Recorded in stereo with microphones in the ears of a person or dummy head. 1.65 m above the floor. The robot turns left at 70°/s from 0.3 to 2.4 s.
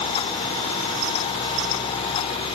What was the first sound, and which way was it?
Only background noise.